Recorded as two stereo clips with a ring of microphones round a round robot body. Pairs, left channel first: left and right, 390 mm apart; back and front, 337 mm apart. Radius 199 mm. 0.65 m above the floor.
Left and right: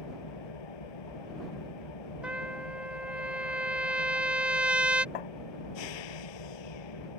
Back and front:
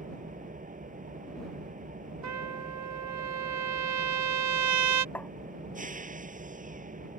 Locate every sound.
0.0 s an engine running: 65° left
2.2 s a trumpet: 5° right
5.2 s tapping: 95° left